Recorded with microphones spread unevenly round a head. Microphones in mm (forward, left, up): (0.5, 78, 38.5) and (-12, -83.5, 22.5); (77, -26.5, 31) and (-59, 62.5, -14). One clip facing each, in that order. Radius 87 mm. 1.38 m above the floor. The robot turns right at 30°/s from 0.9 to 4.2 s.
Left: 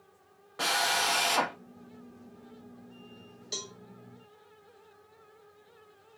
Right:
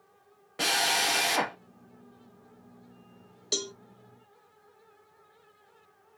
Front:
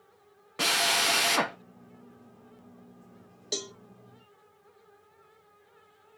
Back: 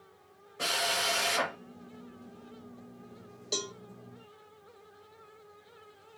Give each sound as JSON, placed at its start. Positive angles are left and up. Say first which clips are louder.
{"t": 0.6, "sound": "a drill", "louder": "right 1 dB, front 3 dB", "azimuth_deg": -35, "distance_m": 0.9}
{"t": 3.5, "sound": "a cowbell", "louder": "right 9 dB, even", "azimuth_deg": -90, "distance_m": 0.7}